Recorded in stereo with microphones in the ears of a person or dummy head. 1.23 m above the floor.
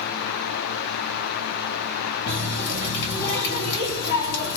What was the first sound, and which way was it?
A running tap, 65° left (ahead or behind).